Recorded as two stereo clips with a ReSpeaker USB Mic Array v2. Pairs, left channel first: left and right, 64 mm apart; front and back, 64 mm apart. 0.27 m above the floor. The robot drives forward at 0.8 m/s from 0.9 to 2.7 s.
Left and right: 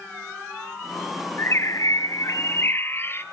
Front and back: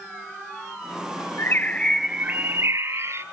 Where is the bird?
45° left, 0.7 m; by 3.2 s 140° left, 0.8 m.